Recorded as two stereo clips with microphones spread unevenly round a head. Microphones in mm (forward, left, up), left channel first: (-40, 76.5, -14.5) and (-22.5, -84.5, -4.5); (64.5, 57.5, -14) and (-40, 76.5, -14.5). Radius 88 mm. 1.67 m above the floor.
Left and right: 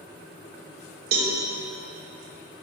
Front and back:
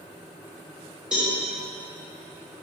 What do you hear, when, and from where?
1.1 s a cowbell: 105° right, 1.1 m